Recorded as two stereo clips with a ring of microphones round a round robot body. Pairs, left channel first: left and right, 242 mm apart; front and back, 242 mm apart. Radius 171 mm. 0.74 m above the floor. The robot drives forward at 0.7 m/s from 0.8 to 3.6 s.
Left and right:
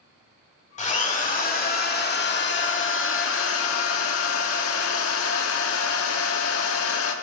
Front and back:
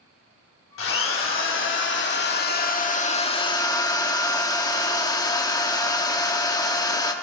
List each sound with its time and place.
0.8 s a drill: 30° left, 3 m; by 7.1 s 75° left, 1.6 m